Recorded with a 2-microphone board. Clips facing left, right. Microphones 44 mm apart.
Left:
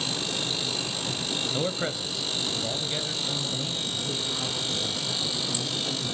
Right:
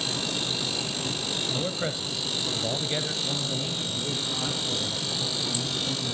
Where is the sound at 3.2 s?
10° right (ahead or behind), 6 m.